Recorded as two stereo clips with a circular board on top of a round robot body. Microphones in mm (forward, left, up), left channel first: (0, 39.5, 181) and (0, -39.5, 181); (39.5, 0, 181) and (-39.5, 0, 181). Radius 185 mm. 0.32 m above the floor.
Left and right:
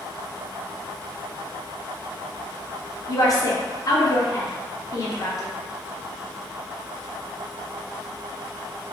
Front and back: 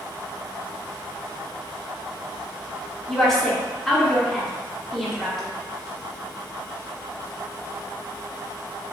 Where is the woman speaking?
85° left, 1.1 m.